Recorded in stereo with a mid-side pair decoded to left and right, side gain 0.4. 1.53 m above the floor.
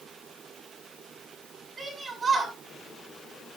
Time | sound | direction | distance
1.8 | a shout | 35° right | 5.5 m